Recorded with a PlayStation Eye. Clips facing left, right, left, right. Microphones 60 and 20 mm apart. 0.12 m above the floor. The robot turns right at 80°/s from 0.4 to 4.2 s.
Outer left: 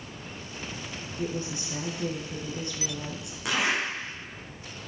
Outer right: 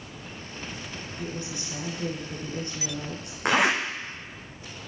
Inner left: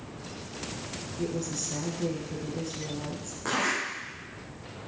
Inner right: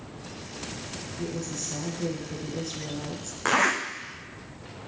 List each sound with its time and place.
1.2 s a woman speaking: 110° left, 1.8 m; by 3.4 s 80° right, 1.8 m
3.5 s a zipper: 45° right (ahead or behind), 1.4 m; by 3.8 s 70° right (ahead or behind), 1.4 m